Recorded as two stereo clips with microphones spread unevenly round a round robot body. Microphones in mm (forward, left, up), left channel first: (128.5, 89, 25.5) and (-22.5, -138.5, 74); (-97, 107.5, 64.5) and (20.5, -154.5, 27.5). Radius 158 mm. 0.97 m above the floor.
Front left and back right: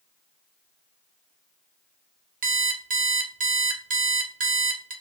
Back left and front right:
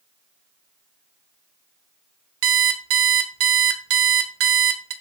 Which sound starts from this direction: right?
An alarm clock, at 2.4 s.